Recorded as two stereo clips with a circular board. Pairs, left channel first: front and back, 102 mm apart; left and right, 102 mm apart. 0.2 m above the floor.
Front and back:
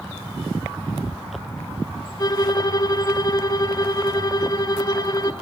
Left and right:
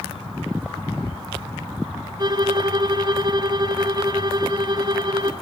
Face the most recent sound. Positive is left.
turn(degrees=-50)